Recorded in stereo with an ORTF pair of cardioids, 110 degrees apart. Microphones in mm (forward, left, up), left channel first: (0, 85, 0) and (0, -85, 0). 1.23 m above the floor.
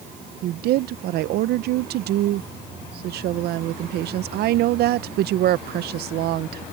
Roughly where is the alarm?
I don't hear an alarm.